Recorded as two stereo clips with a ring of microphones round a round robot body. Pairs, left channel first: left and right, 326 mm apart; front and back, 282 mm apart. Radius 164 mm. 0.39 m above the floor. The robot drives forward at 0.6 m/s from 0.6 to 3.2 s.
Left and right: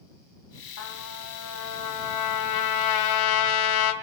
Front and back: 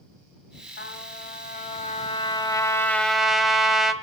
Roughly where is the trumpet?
Ahead left.